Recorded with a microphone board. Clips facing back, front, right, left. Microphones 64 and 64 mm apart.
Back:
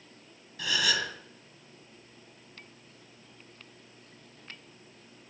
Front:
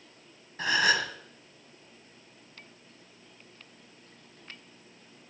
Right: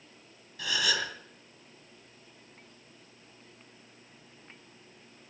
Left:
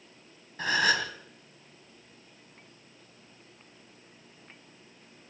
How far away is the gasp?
About 1.6 m.